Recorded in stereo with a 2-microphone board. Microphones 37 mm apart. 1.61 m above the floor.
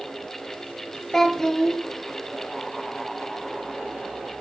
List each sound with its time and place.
1.1 s a child speaking: 15° left (ahead or behind), 0.6 m